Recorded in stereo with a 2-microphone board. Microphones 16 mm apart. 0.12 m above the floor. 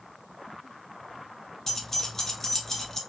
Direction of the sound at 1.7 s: 25° left (ahead or behind).